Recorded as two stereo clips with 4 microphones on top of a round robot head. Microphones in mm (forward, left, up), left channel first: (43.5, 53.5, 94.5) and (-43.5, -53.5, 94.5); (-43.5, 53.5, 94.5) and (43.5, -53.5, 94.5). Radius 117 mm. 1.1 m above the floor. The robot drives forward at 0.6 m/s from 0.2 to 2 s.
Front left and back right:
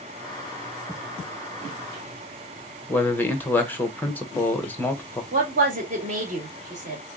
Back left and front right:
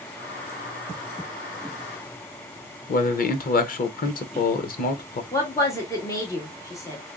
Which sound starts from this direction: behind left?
A man speaking, at 2.9 s.